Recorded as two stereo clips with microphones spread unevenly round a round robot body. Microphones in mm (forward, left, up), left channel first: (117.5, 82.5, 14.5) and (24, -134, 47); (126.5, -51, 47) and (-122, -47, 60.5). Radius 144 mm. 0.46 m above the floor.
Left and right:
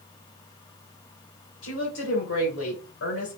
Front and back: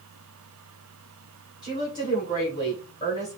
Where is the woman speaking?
70° left, 3 m.